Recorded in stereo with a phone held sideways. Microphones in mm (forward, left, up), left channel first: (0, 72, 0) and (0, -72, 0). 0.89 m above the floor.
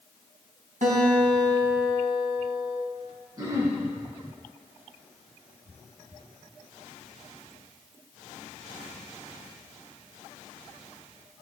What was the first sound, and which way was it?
A guitar, 70° right (ahead or behind).